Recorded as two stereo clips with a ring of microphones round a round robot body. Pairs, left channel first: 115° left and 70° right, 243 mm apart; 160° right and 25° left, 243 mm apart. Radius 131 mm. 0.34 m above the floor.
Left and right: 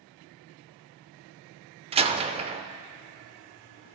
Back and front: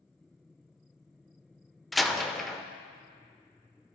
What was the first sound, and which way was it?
A door slam, 65° right.